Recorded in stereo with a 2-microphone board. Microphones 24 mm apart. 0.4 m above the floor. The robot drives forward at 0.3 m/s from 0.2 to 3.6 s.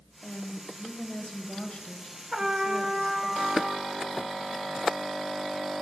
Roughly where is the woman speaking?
Left.